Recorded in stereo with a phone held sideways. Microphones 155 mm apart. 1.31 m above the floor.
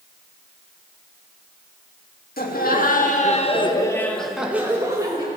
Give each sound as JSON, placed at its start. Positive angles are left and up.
{"t": 2.4, "sound": "laughter", "side_deg": 75, "distance_m": 2.0}